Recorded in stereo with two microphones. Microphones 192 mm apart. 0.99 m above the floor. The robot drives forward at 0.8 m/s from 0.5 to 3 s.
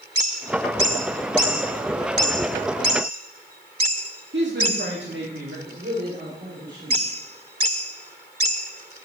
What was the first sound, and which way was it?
A woman speaking, 75° right (ahead or behind).